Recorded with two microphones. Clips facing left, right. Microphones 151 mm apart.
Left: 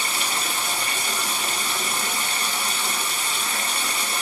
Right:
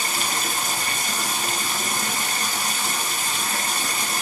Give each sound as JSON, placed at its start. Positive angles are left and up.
{"t": 0.0, "sound": "running water", "side_deg": -40, "distance_m": 1.0}